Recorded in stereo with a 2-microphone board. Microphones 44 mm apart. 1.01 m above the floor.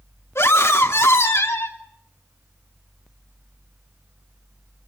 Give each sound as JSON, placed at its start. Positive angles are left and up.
{"t": 0.3, "sound": "a scream", "side_deg": 75, "distance_m": 3.0}